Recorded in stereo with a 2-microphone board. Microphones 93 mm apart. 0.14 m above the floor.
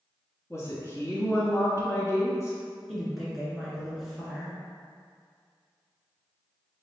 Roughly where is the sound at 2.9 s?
Centre.